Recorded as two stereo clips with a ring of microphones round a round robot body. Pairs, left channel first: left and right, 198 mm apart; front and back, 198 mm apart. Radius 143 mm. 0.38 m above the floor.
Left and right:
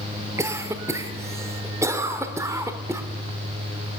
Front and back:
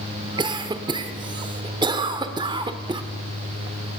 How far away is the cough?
About 0.9 m.